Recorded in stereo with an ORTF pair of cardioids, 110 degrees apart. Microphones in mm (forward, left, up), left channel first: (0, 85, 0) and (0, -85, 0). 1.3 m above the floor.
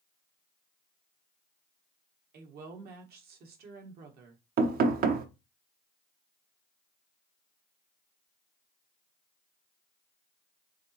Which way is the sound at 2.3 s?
70° right.